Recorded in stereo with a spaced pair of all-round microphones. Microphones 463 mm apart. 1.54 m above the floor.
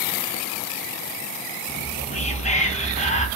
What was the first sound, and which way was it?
Whispering, 15° left (ahead or behind).